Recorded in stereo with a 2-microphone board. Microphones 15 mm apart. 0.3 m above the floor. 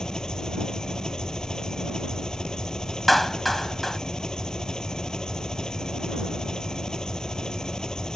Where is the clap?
20° left (ahead or behind).